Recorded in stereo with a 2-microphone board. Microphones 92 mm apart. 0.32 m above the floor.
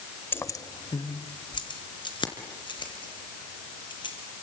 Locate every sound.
0.3 s keys jangling: 20° left (ahead or behind), 0.6 m; by 4.1 s 60° left (ahead or behind), 5.5 m